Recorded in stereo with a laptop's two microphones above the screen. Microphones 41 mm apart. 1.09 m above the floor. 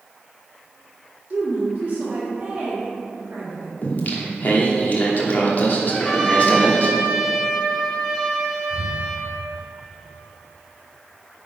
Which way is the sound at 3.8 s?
45° left (ahead or behind).